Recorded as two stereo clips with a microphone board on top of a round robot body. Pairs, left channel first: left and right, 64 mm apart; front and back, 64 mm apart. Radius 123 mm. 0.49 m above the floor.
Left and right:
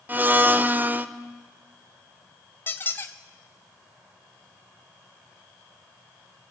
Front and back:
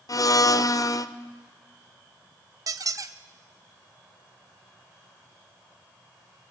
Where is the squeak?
150° left, 0.9 m.